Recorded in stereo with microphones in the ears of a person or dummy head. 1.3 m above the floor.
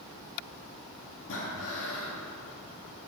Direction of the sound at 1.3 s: 80° left.